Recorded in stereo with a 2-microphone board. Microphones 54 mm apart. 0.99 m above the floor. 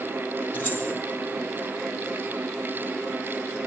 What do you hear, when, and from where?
0.5 s keys jangling: 25° left (ahead or behind), 7.5 m